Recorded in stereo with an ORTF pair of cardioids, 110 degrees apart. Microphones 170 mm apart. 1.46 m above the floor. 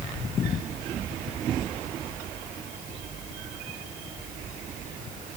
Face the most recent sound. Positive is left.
No sound to turn to.